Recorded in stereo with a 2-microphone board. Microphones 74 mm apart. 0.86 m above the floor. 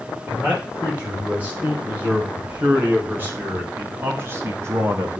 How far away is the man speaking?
About 6 m.